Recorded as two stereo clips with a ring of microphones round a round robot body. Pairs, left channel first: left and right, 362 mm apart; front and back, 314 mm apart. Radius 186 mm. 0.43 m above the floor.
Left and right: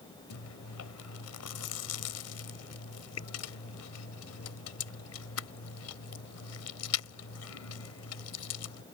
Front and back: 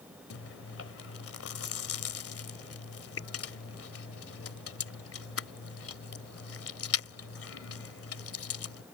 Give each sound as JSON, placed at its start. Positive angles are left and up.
{"t": 0.3, "sound": "chewing", "azimuth_deg": 45}